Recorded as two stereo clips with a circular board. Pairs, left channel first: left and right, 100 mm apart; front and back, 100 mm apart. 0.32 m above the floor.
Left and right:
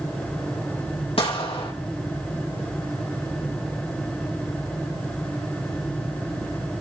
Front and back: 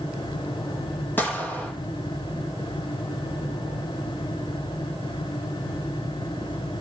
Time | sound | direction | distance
1.2 | a gunshot | 70° left | 4.5 m